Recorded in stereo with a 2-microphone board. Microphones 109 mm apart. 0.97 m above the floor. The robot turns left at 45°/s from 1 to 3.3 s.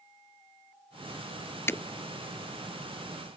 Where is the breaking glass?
20° left (ahead or behind).